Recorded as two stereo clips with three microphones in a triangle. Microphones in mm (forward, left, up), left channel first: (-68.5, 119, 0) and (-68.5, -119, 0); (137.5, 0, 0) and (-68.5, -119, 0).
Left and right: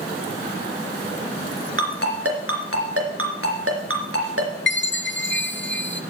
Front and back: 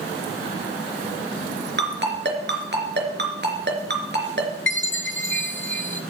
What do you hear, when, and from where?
1.8 s a ringtone: 110° right, 3 m
4.7 s a chime: 60° left, 0.9 m